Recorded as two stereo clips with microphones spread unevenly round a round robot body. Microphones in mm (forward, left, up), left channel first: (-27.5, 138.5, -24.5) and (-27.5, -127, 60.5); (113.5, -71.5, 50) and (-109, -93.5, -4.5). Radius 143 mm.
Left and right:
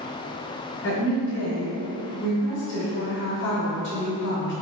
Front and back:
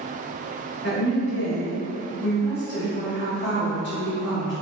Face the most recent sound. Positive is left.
turn(degrees=60)